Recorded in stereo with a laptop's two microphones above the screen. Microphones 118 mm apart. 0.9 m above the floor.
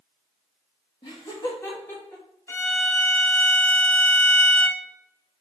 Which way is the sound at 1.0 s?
40° left (ahead or behind).